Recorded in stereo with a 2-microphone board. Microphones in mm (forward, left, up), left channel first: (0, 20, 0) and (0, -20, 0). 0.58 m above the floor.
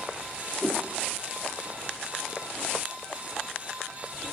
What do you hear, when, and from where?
0.6 s a whoosh: 25° right (ahead or behind), 0.6 m